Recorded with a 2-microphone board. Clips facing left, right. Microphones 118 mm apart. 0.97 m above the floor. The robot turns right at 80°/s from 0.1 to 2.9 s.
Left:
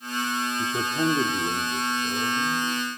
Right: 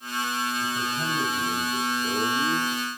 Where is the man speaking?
80° left, 2.5 m; by 2.7 s 110° right, 2.5 m.